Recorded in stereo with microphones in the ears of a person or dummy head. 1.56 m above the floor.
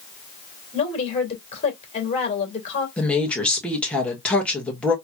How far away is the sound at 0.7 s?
About 2.5 m.